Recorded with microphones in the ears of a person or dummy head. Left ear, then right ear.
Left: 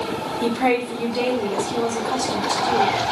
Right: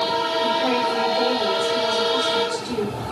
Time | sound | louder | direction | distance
0.4 | a woman speaking | left 4 dB | 75° left (ahead or behind) | 0.9 m